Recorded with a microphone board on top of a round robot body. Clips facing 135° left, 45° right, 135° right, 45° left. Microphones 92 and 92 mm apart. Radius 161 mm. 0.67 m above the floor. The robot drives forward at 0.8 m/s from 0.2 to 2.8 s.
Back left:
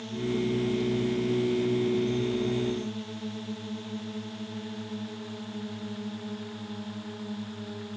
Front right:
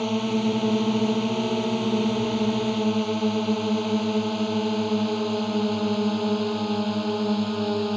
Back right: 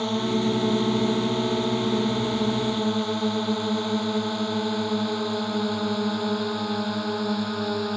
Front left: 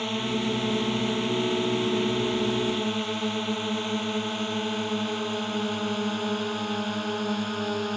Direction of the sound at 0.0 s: 60° right.